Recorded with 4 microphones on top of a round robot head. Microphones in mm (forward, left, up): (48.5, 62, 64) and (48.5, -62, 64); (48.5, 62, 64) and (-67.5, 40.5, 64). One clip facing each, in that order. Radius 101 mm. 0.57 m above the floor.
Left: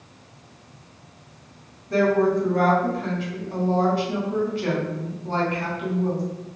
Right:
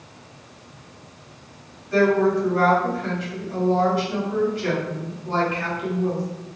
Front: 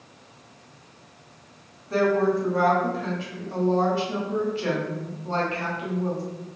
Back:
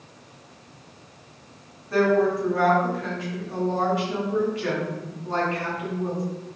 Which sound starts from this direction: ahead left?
A woman speaking, at 1.9 s.